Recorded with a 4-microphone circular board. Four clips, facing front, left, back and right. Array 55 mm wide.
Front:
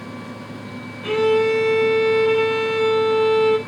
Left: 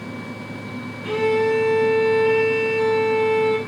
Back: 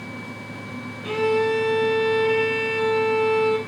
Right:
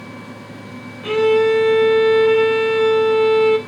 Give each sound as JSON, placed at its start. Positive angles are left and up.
{"t": 1.0, "sound": "a violin", "azimuth_deg": -40, "distance_m": 2.5}